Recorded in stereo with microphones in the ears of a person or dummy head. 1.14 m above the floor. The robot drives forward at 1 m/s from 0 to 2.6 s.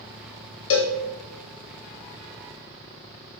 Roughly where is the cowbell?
Left.